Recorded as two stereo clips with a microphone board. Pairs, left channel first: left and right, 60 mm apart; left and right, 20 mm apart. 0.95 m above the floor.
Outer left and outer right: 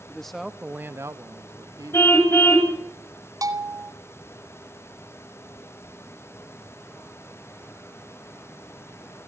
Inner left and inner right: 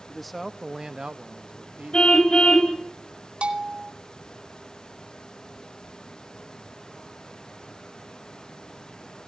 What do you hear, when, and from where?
0.1 s a man speaking: 10° left (ahead or behind), 1.2 m; by 2.6 s 70° right (ahead or behind), 2 m
1.9 s a car horn: 45° left (ahead or behind), 3.5 m
3.4 s a bell: 80° right, 2.5 m